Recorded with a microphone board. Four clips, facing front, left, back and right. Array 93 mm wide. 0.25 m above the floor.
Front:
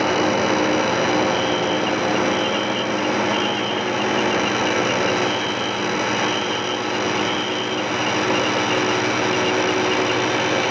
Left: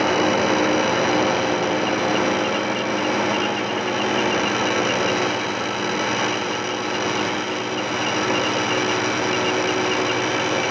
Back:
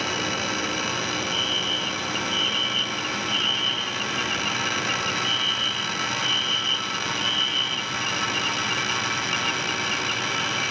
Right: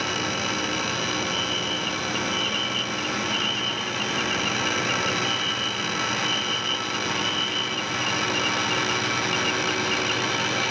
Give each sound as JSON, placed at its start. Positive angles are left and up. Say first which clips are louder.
{"t": 0.0, "sound": "a drone", "louder": "left 9 dB, front 9 dB", "azimuth_deg": 45}
{"t": 1.3, "sound": "a fire alarm", "louder": "left 8 dB, front 9 dB", "azimuth_deg": -140}